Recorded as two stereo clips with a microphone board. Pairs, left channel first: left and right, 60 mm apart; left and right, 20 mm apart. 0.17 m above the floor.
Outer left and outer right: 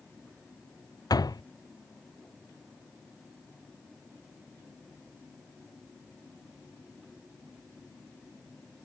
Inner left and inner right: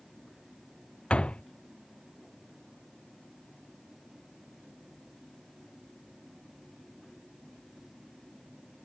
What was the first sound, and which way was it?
A door slam, 85° left.